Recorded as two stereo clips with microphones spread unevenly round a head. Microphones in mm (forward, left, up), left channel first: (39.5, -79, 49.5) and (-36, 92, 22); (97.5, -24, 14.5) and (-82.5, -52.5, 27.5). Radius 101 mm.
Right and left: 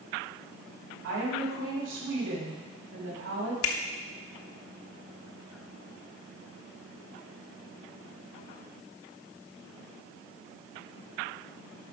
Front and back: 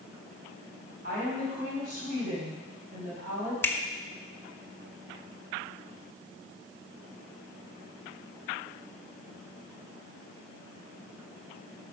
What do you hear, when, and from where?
1.0 s a woman speaking: 135° left, 5.5 m
3.6 s a finger snap: 70° right, 1.1 m